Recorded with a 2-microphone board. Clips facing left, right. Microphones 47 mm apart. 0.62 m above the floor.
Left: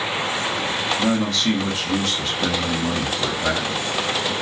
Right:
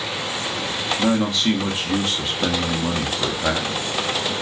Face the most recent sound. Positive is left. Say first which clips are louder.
# right 3 dB
turn(degrees=-20)  # may be behind; listen again after turning